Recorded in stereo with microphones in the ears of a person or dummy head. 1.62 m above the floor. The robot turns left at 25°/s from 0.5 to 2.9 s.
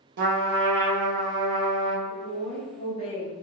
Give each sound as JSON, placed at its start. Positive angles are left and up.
{"t": 0.2, "sound": "a trumpet", "azimuth_deg": -120, "distance_m": 0.6}
{"t": 2.1, "sound": "a woman speaking", "side_deg": 25, "distance_m": 0.6}